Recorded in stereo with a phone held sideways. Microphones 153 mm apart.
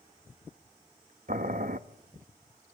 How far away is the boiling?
About 0.7 m.